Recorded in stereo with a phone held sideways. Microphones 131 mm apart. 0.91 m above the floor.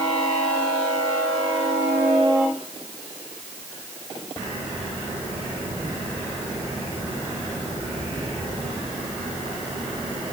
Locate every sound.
Only background noise.